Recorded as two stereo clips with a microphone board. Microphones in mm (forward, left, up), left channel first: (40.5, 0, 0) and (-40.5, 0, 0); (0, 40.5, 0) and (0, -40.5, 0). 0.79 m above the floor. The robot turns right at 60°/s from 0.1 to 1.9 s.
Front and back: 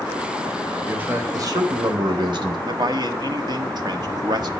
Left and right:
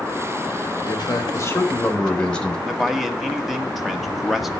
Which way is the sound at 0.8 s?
105° left.